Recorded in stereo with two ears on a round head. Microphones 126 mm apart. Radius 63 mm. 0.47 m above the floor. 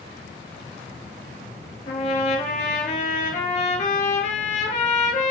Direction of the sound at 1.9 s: 50° left (ahead or behind).